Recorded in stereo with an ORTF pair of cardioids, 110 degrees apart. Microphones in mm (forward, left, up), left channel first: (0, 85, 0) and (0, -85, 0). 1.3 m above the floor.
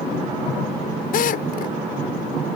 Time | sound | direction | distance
1.1 | a drill | 60° left | ?